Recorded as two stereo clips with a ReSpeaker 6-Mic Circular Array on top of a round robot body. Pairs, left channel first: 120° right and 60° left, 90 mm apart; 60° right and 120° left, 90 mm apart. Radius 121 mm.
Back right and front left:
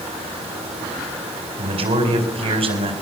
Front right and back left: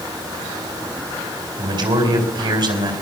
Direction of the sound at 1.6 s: 80° left.